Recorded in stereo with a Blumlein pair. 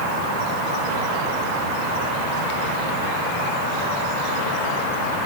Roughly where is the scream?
I don't hear a scream.